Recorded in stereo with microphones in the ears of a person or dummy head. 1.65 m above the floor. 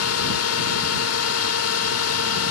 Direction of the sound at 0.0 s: 80° left.